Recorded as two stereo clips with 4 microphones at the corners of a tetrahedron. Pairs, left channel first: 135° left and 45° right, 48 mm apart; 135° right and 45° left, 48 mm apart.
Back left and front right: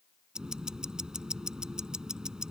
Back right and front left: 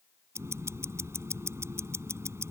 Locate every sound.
0.3 s ticking: 30° left